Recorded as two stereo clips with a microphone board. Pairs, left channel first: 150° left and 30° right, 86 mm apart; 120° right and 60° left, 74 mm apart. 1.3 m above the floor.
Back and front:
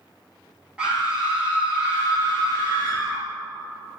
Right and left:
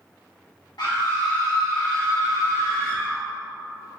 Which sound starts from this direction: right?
A scream, at 0.8 s.